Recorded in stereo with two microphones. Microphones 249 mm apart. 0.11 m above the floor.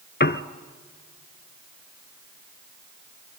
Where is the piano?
45° left (ahead or behind), 0.6 m.